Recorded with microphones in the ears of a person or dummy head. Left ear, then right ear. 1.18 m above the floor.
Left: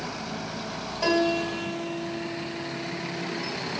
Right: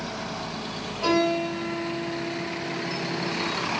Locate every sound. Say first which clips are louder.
1.0 s a piano: right 1 dB; 75° left (ahead or behind), 6 m